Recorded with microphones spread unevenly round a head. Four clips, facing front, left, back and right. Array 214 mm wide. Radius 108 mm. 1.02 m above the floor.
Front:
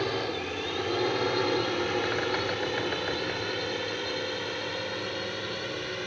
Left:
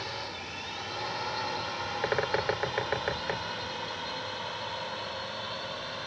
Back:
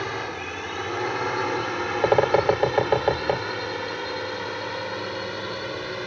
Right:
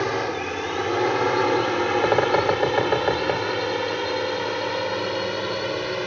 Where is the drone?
70° right; by 6.1 s 95° right.